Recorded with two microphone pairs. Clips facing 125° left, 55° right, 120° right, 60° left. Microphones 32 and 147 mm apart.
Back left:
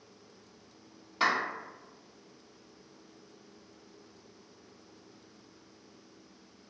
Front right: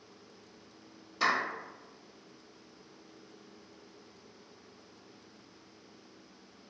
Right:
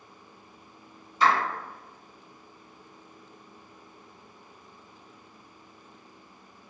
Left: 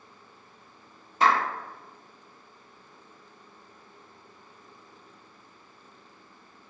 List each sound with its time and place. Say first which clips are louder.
1.2 s a clap: back left 1 dB, left 1 dB; 85° left, 1.7 m